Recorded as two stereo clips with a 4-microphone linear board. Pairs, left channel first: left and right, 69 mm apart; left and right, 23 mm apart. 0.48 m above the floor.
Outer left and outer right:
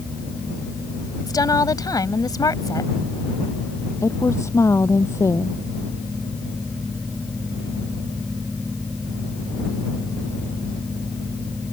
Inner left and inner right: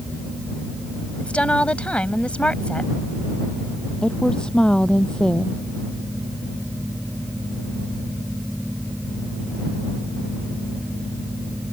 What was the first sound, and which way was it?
A woman speaking, 65° left (ahead or behind).